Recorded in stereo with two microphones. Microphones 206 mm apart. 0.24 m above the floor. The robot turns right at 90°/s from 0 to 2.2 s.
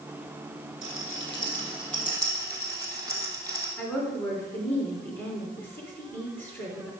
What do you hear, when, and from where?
0.8 s a rattle: 75° left (ahead or behind), 2.5 m; by 3.7 s 20° right (ahead or behind), 2.5 m
3.8 s a woman speaking: 10° left (ahead or behind), 3 m